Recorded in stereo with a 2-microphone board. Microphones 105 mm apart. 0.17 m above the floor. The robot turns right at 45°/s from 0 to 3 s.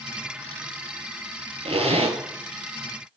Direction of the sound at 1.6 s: 70° right (ahead or behind).